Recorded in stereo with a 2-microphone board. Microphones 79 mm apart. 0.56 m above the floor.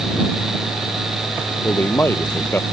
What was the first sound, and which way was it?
A man speaking, 30° left (ahead or behind).